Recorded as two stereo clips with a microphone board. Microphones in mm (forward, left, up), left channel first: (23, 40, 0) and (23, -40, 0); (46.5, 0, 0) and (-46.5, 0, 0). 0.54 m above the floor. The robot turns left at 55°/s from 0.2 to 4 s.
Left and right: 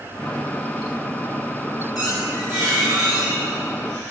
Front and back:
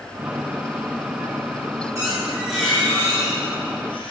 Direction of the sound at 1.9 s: 125° left.